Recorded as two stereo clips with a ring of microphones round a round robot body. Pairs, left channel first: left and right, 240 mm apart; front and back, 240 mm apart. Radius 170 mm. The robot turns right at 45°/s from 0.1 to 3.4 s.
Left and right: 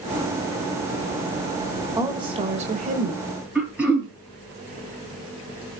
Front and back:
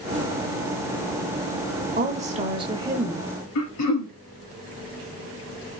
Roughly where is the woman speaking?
Behind right.